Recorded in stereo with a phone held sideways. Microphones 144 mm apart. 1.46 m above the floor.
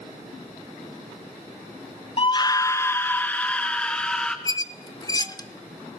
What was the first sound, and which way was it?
A scream, 40° left (ahead or behind).